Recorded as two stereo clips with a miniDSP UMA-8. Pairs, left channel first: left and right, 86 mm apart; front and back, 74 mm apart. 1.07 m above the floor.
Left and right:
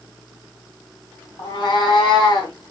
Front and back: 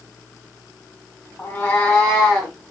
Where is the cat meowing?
65° left, 1.9 m; by 2.5 s 90° left, 2 m.